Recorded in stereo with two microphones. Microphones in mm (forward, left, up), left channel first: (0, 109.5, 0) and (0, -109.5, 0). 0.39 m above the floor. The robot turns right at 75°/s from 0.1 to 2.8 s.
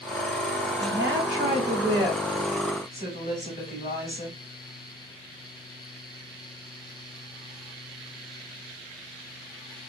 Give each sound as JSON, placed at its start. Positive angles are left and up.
{"t": 0.8, "sound": "a woman speaking", "azimuth_deg": -105, "distance_m": 2.5}